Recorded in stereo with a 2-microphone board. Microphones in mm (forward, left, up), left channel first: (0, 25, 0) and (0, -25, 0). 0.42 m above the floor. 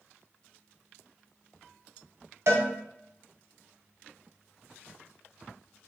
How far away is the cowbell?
About 0.6 m.